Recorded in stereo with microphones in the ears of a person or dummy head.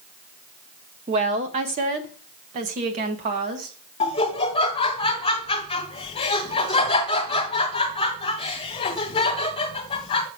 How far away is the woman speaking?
About 0.6 m.